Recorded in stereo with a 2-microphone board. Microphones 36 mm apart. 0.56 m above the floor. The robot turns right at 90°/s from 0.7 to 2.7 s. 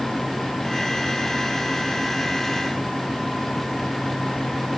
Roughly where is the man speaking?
I don't hear a man speaking.